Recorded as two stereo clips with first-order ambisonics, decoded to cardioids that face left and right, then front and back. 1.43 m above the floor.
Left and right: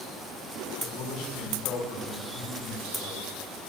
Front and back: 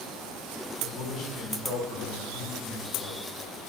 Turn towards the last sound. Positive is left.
turn(degrees=55)